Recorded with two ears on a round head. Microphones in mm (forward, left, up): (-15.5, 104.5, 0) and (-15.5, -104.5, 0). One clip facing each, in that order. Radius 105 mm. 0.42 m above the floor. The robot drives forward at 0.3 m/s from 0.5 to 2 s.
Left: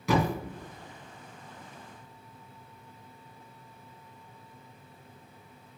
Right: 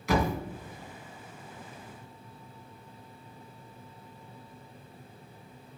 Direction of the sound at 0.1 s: 75° left (ahead or behind).